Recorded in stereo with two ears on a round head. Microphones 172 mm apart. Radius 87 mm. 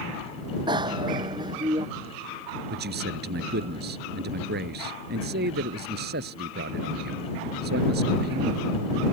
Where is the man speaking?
60° right (ahead or behind).